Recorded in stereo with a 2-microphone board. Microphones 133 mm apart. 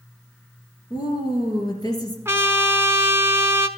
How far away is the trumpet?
About 0.5 m.